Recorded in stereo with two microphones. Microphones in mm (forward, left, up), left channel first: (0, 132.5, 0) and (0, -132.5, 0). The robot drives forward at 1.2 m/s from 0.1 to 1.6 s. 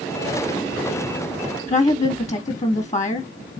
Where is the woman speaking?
30° left (ahead or behind), 0.9 m.